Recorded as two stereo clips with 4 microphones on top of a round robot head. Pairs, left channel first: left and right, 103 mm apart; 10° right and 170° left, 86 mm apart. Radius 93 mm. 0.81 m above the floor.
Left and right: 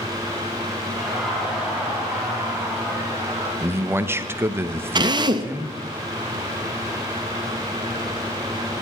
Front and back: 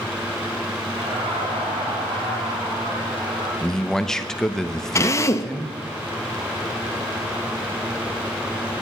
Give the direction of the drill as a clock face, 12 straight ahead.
2 o'clock.